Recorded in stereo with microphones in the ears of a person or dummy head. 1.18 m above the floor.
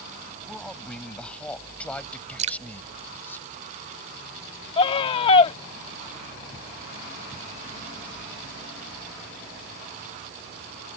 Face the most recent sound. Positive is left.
turn(degrees=35)  # may be behind; listen again after turning